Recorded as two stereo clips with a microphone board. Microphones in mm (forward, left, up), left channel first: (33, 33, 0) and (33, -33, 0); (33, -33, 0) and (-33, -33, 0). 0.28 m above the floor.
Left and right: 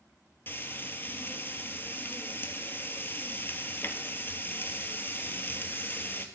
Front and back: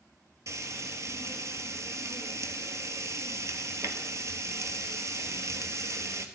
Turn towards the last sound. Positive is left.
turn(degrees=145)